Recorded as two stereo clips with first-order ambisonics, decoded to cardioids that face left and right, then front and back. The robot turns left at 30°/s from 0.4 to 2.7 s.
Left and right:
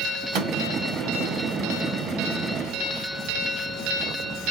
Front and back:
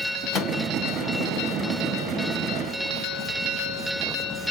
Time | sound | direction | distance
0.3 | a microwave | 60° right | 1.5 m